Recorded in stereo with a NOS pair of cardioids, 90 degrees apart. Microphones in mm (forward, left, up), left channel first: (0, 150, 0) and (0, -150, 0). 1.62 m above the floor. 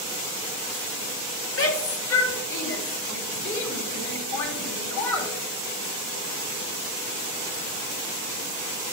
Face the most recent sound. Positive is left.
turn(degrees=70)